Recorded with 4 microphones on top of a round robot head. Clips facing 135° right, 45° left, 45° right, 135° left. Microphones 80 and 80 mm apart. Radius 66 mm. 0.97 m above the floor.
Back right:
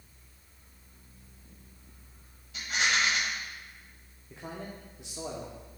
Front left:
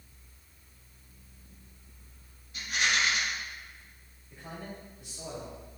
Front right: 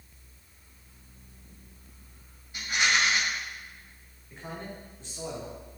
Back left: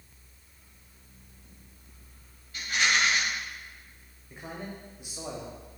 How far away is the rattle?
About 3 m.